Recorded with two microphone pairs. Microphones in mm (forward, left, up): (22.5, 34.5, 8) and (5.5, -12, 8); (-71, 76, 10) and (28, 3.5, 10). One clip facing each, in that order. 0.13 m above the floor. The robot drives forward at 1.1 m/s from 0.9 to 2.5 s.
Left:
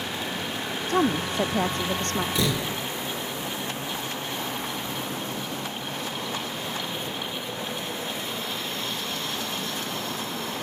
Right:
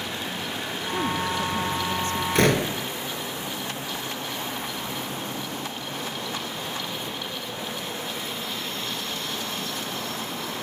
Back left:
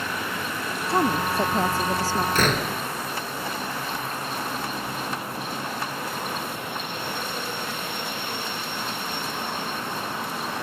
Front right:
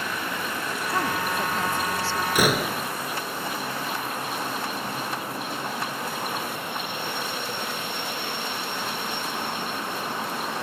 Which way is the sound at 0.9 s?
85° left.